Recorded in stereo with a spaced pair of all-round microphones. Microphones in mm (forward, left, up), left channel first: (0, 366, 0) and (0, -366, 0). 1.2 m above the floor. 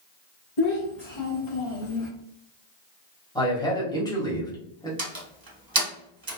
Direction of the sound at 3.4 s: 5° left (ahead or behind).